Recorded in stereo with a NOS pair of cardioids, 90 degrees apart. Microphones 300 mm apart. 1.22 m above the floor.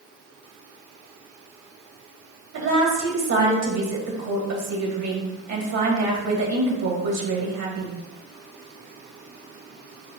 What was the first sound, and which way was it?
A woman speaking, 65° right.